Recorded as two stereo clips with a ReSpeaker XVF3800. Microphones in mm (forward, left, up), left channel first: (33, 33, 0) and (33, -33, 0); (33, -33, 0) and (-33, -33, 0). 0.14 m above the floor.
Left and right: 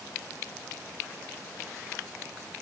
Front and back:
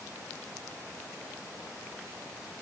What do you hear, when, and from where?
Only background noise.